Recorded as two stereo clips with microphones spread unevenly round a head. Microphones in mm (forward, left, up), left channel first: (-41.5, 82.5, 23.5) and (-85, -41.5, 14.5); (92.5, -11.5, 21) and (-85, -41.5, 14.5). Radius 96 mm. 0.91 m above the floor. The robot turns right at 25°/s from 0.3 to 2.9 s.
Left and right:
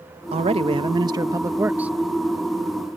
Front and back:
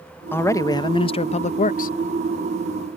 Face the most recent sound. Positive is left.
turn(degrees=-5)